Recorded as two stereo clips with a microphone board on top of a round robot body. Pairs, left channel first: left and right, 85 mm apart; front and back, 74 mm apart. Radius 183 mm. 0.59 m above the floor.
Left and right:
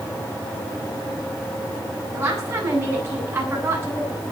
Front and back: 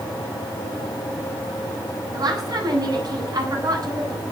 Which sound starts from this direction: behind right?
A woman speaking, at 2.1 s.